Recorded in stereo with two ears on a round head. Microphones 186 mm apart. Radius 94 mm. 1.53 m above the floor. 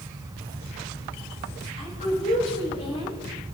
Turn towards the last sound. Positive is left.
turn(degrees=40)  # may be behind; listen again after turning